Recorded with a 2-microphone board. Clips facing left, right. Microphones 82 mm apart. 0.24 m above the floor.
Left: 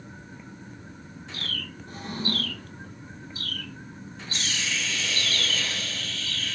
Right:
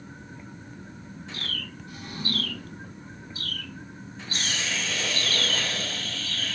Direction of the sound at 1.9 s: 40° left (ahead or behind).